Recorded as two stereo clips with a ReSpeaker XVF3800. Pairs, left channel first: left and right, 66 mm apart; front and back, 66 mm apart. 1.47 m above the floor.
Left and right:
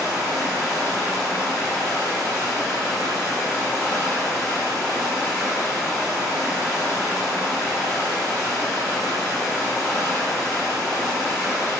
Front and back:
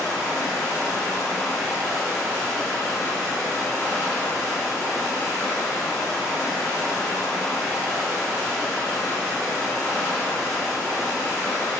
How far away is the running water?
About 1.9 m.